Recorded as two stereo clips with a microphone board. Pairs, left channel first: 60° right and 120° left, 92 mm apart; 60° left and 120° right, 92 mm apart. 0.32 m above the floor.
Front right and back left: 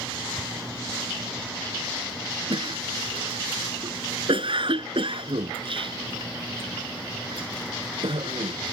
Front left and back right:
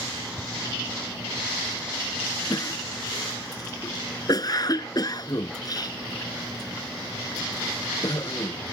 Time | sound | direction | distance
2.5 | a cough | 105° left | ?